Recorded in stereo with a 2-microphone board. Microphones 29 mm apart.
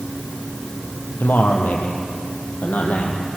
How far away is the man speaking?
About 4 m.